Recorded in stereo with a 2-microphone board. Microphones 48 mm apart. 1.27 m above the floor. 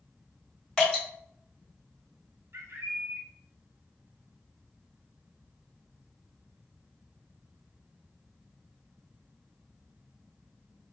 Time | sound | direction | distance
0.8 | dripping | 10° left (ahead or behind) | 1.7 m
2.5 | a bird | 60° right (ahead or behind) | 0.5 m